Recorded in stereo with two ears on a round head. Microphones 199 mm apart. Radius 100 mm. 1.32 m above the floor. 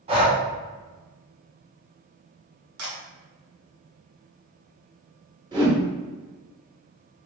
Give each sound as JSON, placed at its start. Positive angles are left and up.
{"t": 0.1, "sound": "breathing", "side_deg": -25, "distance_m": 0.8}
{"t": 2.8, "sound": "a camera shutter", "side_deg": -70, "distance_m": 1.3}
{"t": 5.5, "sound": "a whoosh", "side_deg": -20, "distance_m": 1.2}